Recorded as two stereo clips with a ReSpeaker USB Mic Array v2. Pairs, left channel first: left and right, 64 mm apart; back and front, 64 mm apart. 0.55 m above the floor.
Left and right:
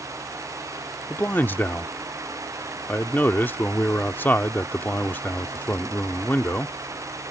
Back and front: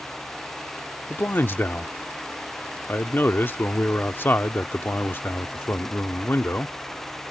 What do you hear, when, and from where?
1.1 s a man speaking: 135° left